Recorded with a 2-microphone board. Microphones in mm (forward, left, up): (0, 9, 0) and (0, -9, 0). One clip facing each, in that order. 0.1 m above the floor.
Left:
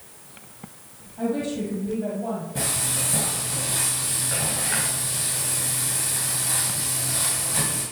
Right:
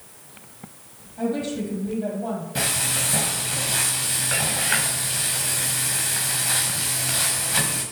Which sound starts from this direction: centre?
A woman speaking, at 1.2 s.